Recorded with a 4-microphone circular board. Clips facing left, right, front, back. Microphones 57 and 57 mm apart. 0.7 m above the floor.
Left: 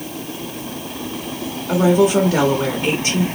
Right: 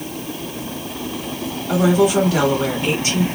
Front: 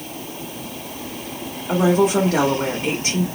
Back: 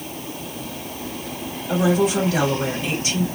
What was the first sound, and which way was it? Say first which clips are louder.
A woman speaking: left 1 dB, front 2 dB; 40° left.